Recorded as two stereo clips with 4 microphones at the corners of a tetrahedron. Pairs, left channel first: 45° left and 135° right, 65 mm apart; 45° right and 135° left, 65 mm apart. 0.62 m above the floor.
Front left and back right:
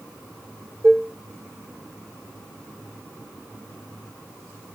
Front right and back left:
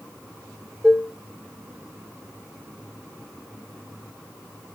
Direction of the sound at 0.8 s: 150° right.